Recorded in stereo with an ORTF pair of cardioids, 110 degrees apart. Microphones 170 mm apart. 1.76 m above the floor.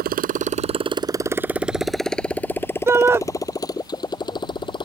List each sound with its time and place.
0.0 s a motorcycle: 65° right; by 4.8 s 30° left
2.9 s a shout: 15° right